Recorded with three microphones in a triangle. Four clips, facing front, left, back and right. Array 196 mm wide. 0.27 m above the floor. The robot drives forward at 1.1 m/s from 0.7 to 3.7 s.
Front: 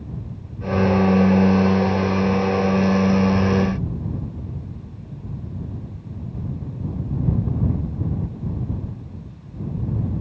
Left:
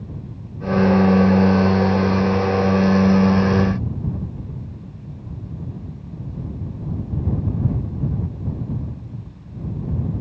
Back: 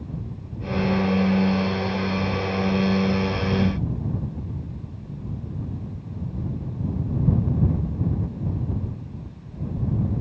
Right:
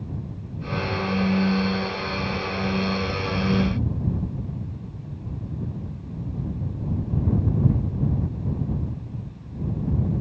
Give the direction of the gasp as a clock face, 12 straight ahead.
No gasp in this recording.